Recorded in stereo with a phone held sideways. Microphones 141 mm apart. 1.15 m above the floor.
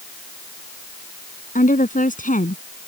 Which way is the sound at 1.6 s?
75° left (ahead or behind).